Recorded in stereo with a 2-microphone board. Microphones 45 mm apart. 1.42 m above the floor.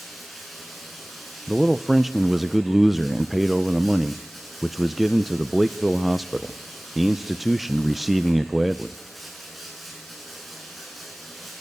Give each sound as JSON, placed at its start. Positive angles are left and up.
{"t": 0.0, "sound": "running water", "side_deg": 0, "distance_m": 7.5}
{"t": 1.5, "sound": "a man speaking", "side_deg": -5, "distance_m": 0.5}